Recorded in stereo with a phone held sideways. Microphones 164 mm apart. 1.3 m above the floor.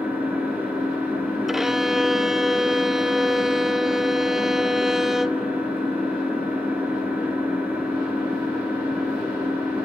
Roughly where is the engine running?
Centre.